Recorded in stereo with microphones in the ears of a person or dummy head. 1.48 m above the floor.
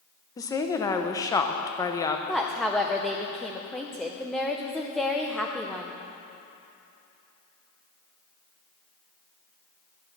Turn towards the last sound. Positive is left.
turn(degrees=0)  # may be behind; listen again after turning